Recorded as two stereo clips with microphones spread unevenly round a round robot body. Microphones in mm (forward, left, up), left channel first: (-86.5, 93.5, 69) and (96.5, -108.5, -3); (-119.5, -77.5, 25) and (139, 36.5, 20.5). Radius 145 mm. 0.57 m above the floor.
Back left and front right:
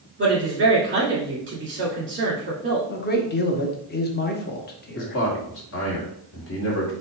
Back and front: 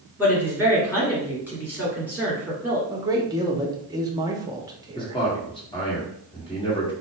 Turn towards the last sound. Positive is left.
turn(degrees=145)